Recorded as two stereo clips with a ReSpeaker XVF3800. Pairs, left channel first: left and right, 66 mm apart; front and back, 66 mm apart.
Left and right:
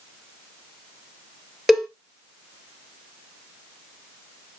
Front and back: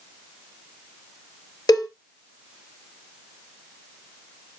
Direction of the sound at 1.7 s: 5° right.